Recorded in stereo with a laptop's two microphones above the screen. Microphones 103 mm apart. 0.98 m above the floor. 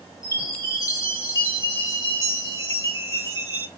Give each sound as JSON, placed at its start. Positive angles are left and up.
{"t": 0.2, "sound": "a chime", "side_deg": 35, "distance_m": 2.5}